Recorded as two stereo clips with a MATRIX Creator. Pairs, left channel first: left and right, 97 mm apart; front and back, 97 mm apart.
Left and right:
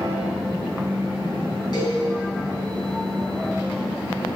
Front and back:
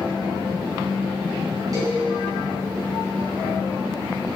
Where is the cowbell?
135° left, 4 m.